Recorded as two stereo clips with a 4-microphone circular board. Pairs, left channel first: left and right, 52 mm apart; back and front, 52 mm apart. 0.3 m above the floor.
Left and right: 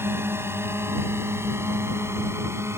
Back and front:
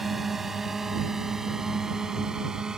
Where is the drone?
85° right; by 2.8 s 75° right.